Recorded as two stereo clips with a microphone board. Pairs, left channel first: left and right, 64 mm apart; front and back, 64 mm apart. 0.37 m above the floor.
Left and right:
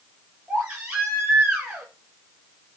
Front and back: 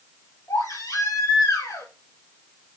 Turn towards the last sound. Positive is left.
turn(degrees=-15)